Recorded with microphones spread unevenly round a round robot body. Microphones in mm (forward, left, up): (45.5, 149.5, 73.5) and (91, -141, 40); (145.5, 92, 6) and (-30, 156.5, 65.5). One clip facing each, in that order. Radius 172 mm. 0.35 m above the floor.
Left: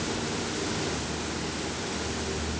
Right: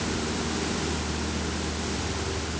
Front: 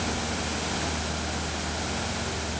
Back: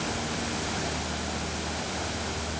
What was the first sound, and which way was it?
Only background noise.